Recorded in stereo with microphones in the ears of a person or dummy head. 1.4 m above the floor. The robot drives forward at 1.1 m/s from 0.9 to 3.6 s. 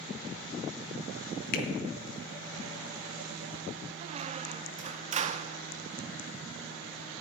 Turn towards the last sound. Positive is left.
turn(degrees=-30)  # may be behind; listen again after turning